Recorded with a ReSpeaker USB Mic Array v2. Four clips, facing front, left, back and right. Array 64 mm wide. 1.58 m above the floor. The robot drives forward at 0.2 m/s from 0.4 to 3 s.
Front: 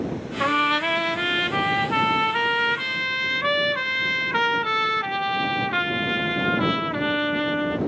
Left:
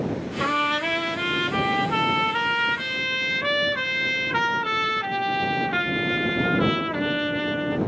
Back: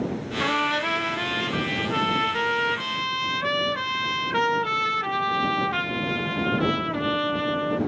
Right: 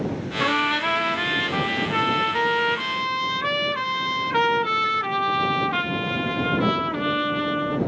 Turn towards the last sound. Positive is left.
turn(degrees=-5)